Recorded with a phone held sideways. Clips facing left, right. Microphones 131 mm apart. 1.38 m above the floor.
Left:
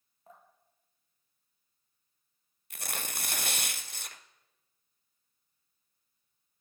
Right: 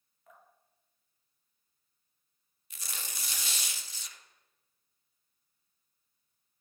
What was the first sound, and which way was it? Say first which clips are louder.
Dripping: left 3 dB; 30° left (ahead or behind).